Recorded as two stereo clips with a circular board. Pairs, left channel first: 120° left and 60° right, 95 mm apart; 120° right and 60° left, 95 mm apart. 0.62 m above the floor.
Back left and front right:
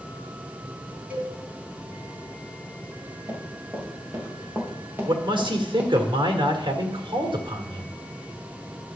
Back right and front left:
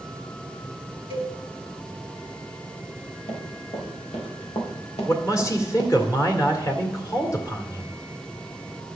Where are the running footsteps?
120° right, 5 m; by 6.1 s 135° right, 3 m.